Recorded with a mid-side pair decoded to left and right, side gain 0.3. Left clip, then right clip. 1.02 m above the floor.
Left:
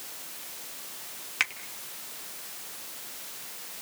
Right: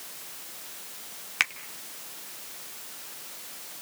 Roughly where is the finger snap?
Ahead right.